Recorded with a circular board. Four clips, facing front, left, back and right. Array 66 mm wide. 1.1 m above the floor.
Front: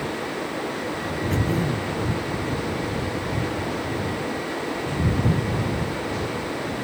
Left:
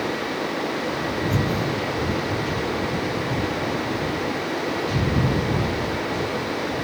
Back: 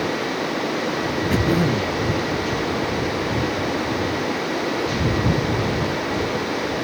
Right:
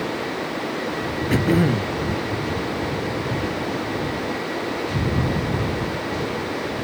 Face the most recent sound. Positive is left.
turn(degrees=-110)